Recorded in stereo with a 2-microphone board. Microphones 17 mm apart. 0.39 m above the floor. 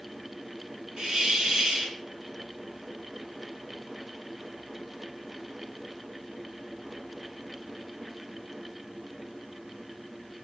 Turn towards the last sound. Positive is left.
turn(degrees=-60)  # may be behind; listen again after turning